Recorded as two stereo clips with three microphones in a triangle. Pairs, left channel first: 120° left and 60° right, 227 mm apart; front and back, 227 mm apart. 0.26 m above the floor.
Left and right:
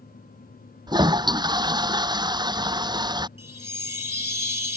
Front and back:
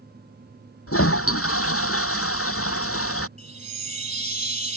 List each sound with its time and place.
0.9 s a toilet flushing: 10° left
3.4 s a chime: 120° left